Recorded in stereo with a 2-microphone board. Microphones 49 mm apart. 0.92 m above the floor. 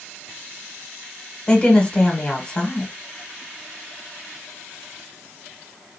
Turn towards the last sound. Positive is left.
turn(degrees=20)  # may be behind; listen again after turning